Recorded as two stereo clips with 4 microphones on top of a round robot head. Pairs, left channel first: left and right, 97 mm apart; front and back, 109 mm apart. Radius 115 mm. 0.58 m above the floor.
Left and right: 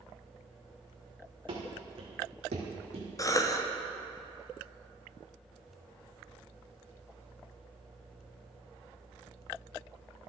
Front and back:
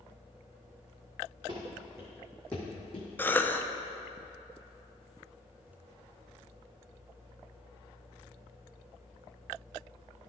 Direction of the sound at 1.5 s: 120° right.